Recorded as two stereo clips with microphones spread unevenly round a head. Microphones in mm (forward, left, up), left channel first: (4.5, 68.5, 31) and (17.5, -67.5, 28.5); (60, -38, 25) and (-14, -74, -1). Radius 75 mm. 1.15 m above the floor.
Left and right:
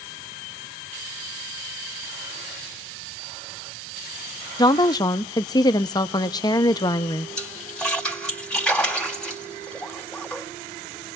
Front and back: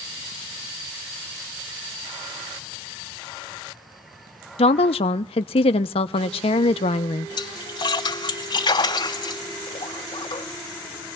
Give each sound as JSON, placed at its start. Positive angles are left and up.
{"t": 4.6, "sound": "a woman speaking", "azimuth_deg": 35, "distance_m": 0.6}
{"t": 7.4, "sound": "a splash", "azimuth_deg": 10, "distance_m": 2.5}